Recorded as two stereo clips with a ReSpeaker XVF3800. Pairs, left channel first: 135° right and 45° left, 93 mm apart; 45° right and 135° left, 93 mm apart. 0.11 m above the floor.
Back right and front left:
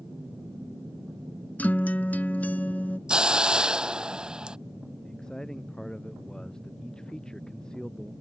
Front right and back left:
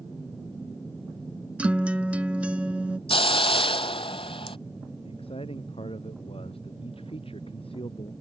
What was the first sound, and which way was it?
A guitar, 175° right.